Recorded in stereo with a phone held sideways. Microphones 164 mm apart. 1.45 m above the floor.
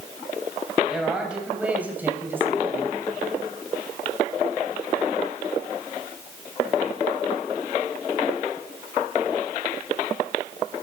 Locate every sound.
0.8 s a man speaking: 5° right (ahead or behind), 7.5 m; by 3.0 s 20° right (ahead or behind), 6 m